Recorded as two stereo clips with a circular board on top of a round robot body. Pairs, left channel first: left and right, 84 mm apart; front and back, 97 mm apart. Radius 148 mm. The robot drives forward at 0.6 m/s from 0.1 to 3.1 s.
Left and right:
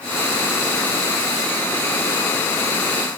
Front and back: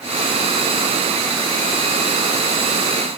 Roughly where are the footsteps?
No footsteps in this recording.